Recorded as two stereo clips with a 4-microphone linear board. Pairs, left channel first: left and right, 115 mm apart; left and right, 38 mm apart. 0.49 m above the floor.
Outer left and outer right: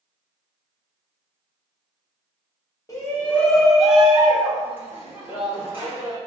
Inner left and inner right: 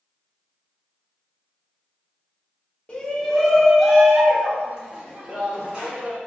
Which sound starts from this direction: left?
A shout, at 2.9 s.